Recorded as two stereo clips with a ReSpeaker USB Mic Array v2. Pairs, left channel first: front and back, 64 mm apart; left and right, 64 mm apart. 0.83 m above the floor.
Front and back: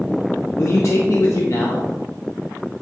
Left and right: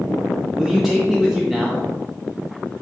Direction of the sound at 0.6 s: 10° right.